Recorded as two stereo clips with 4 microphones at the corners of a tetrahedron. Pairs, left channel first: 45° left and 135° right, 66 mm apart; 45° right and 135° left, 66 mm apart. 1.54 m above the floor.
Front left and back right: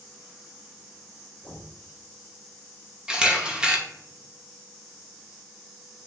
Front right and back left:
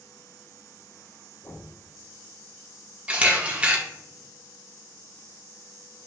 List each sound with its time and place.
1.4 s knocking: 20° right, 1.9 m
3.1 s a camera shutter: 170° left, 1.1 m